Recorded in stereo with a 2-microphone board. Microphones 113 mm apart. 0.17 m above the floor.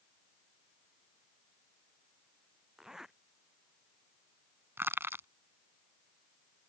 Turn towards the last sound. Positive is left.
turn(degrees=-20)  # may be behind; listen again after turning